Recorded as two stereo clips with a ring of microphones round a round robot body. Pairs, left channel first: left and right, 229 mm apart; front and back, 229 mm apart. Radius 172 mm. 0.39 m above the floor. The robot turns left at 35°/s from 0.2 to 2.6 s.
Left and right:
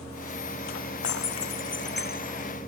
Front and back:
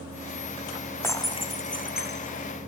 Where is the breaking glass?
80° left; by 2.5 s 30° left.